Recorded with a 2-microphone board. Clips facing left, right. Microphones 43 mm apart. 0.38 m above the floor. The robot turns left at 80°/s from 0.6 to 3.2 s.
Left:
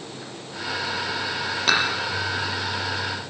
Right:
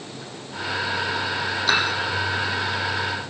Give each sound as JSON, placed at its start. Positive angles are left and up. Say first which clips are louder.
{"t": 1.7, "sound": "dishes clattering", "louder": "even", "side_deg": 65, "distance_m": 6.5}